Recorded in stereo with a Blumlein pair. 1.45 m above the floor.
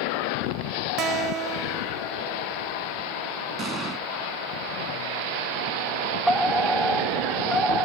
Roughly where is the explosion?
Ahead.